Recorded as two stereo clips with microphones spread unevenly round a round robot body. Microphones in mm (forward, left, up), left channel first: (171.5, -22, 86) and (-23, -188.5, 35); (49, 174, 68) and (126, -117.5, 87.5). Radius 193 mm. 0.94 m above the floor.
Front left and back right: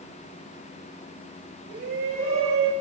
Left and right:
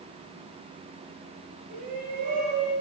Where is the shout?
140° right, 9.5 m.